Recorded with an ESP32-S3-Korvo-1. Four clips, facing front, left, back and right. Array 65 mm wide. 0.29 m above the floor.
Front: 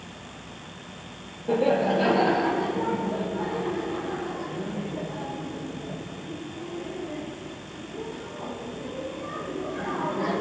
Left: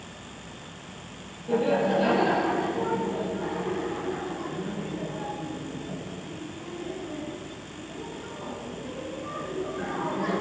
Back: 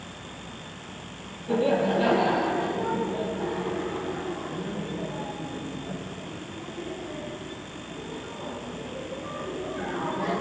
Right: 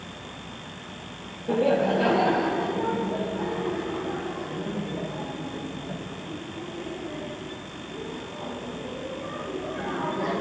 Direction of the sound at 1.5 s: 35° right.